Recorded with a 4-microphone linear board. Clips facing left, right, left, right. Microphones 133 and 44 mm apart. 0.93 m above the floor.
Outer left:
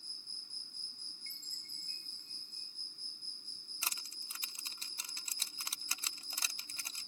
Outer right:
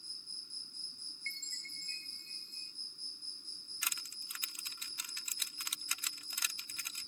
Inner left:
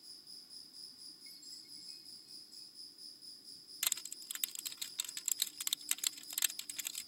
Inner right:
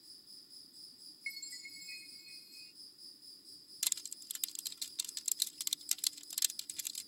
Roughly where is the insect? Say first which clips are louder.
Even, inner left 2 dB; left.